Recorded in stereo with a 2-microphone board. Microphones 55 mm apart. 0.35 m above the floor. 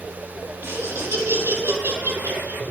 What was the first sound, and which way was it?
Laughter, 55° right (ahead or behind).